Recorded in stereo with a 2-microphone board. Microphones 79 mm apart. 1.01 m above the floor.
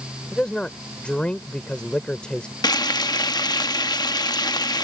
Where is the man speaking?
10° left (ahead or behind).